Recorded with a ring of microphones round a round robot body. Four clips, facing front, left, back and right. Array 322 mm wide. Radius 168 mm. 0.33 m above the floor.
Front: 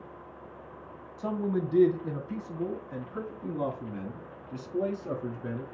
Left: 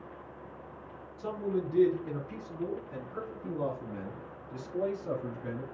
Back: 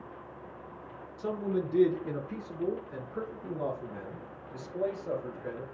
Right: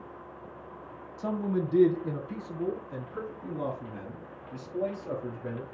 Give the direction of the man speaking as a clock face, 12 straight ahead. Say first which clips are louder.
Right 3 dB, front 1 dB; 1 o'clock.